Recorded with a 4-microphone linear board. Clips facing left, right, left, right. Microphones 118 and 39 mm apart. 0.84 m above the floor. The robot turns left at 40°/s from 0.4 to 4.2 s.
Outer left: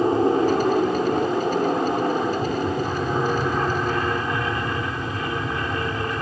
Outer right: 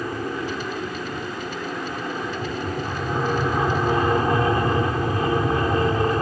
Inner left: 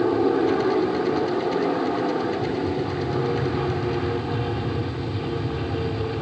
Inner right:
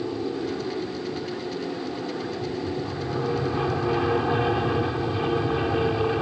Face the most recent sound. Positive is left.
turn(degrees=-35)